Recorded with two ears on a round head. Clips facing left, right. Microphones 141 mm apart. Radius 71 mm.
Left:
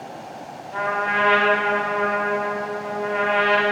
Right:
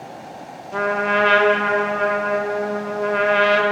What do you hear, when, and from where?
0.7 s a trumpet: 55° right (ahead or behind), 1.0 m